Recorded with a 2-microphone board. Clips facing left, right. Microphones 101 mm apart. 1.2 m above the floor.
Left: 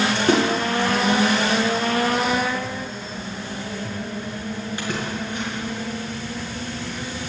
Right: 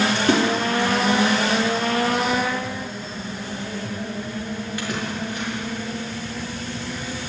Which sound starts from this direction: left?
A splash, at 0.1 s.